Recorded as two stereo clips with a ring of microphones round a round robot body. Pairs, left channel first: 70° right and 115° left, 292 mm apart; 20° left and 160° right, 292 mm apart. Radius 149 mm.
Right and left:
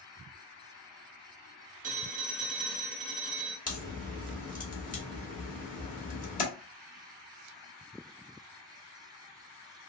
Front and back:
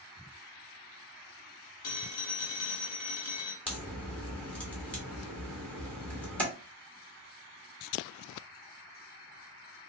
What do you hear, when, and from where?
1.8 s a phone ringing: 50° left, 0.9 m
3.7 s a crack: 55° right, 1.3 m